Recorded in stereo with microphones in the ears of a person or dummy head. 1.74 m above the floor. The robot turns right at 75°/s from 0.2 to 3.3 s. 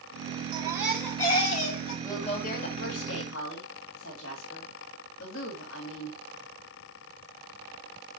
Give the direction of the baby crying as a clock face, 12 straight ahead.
1 o'clock.